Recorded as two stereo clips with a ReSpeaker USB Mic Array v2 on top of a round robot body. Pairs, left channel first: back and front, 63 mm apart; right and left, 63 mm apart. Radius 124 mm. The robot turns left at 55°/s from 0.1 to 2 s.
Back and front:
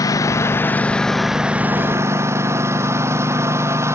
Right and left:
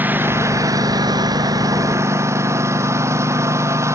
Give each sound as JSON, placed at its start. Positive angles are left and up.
{"t": 0.0, "sound": "a lawn mower", "azimuth_deg": 150}